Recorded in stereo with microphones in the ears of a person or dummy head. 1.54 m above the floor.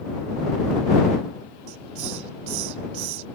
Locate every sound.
1.7 s a hiss: 80° right